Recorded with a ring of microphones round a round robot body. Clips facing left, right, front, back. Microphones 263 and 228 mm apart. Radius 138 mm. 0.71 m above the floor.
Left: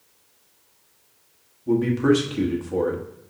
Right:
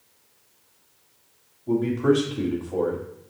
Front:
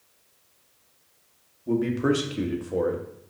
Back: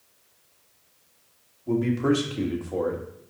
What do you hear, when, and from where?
1.7 s a man speaking: 70° left, 1.1 m